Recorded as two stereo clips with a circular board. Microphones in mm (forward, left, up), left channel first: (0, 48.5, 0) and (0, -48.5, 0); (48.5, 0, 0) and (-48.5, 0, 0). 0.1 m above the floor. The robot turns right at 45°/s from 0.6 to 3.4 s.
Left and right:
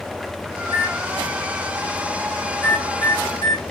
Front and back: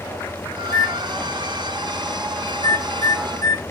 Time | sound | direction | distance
0.6 | a microwave | 80° right | 5 m